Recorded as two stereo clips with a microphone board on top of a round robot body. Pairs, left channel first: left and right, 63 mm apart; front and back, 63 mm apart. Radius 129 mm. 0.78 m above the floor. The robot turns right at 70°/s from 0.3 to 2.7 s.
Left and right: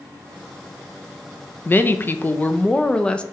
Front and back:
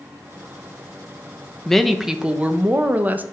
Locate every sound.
1.6 s a woman speaking: 75° left, 0.7 m; by 3.2 s 150° left, 0.7 m